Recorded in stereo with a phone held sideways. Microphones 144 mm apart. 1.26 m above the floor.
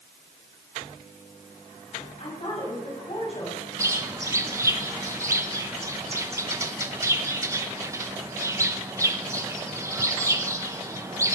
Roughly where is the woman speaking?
Left.